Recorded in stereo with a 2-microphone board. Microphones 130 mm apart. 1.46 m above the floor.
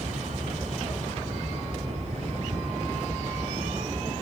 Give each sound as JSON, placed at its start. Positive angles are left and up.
{"t": 0.0, "sound": "a vehicle", "side_deg": -60}